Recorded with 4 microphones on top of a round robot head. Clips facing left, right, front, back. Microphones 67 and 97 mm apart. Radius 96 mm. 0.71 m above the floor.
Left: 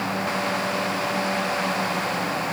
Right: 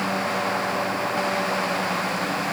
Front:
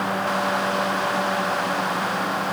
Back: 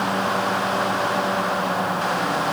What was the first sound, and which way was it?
Only background noise.